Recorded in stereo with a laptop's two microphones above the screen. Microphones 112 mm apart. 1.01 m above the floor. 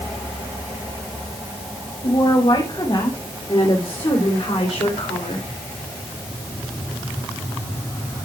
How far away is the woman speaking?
About 6.5 m.